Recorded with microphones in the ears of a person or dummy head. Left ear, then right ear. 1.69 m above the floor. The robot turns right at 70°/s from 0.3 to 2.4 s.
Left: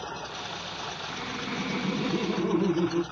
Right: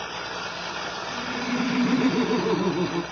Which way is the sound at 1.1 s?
Straight behind.